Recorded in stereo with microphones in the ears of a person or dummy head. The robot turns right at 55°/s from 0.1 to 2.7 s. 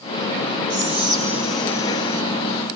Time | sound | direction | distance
0.7 | whispering | 45° right | 1.1 m